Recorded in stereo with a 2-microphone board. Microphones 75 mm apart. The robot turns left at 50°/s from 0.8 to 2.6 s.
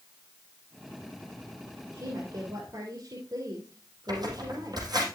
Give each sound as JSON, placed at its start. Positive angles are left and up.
{"t": 1.9, "sound": "a woman speaking", "azimuth_deg": -60, "distance_m": 3.0}
{"t": 4.1, "sound": "tearing paper", "side_deg": -65, "distance_m": 4.5}